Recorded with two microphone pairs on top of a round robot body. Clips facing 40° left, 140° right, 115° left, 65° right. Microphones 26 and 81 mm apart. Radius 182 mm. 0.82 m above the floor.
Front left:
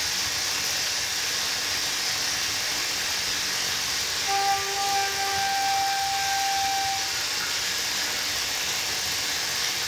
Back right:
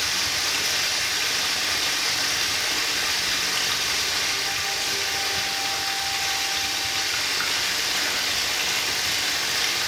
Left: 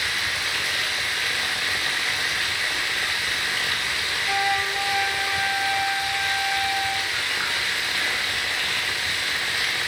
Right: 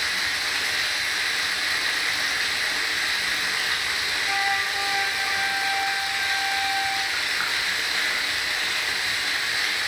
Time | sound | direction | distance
0.0 | running water | 135° right | 2 m
4.3 | a flute | 15° left | 1.1 m